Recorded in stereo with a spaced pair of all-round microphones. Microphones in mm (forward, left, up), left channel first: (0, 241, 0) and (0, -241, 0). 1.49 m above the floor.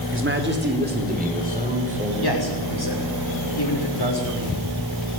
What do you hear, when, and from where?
0.1 s a man speaking: 25° right (ahead or behind), 3 m; by 2.1 s 15° right (ahead or behind), 6 m
2.2 s a man speaking: 50° left (ahead or behind), 6 m